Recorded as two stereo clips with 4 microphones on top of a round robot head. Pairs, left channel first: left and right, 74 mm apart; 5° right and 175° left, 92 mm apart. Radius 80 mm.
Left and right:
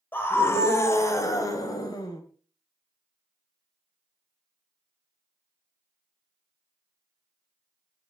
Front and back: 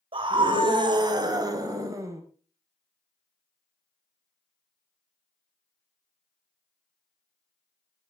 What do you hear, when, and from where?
0.1 s a scream: 155° left, 3.5 m; by 2.2 s 120° left, 4.5 m